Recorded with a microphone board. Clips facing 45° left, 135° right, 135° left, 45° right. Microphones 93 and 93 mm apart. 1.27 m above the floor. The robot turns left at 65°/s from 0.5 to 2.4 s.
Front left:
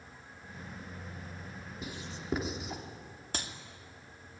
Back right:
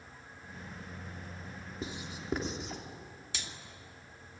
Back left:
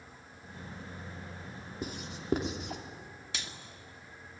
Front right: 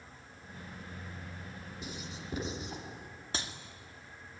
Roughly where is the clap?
Ahead.